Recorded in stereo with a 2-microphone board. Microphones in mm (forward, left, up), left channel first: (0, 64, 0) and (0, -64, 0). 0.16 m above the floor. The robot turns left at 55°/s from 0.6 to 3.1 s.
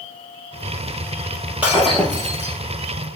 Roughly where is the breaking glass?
Behind.